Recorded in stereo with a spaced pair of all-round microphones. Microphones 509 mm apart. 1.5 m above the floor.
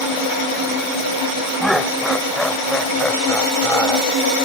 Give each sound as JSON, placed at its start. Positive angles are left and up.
{"t": 1.6, "sound": "laughter", "side_deg": 0}